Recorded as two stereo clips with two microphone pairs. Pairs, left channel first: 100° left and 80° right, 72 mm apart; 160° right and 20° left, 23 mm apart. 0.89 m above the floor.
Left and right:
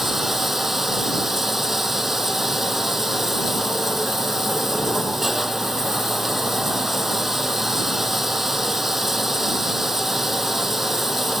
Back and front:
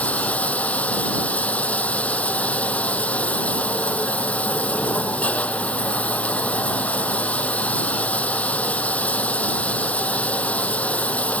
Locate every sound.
0.0 s running water: 165° right